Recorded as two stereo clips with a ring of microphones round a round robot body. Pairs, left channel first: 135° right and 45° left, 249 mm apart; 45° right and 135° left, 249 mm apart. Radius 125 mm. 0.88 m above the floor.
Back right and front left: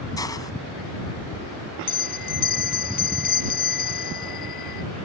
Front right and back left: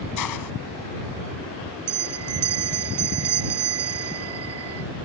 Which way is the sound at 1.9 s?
170° left.